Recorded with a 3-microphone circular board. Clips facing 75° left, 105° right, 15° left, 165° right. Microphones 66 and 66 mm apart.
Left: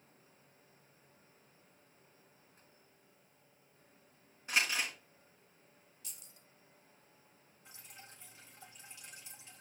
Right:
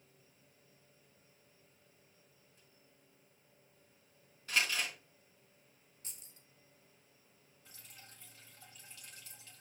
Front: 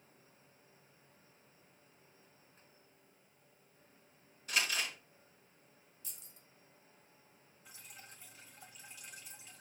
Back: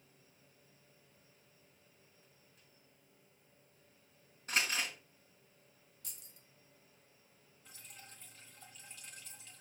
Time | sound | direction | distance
4.5 | crumpling | 145° left | 3.5 m
6.0 | keys jangling | 150° right | 1.3 m
7.7 | dripping | 80° left | 1.4 m